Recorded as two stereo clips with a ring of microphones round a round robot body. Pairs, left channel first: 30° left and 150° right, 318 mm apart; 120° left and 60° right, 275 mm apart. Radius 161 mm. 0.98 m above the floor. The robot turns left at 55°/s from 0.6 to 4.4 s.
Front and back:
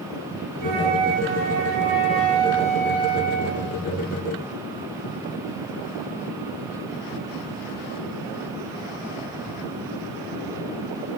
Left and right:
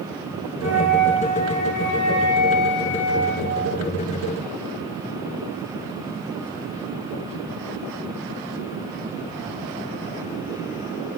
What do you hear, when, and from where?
0.6 s a flute: 175° right, 2 m; by 3.8 s 5° left, 2 m